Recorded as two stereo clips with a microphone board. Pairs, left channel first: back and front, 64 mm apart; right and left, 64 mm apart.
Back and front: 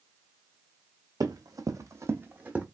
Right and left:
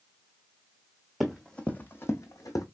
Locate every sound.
1.2 s running footsteps: straight ahead, 0.7 m; by 2.6 s 70° right, 0.8 m